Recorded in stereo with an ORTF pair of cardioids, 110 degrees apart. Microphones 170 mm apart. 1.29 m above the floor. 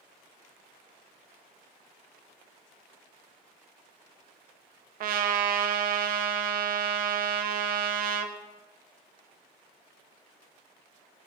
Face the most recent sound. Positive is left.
turn(degrees=-60)